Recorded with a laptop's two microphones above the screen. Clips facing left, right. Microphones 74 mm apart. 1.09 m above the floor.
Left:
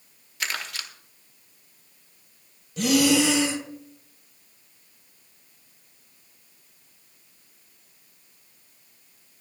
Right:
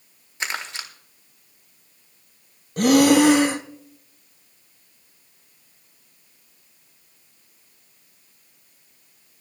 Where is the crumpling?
25° right (ahead or behind), 1.3 m.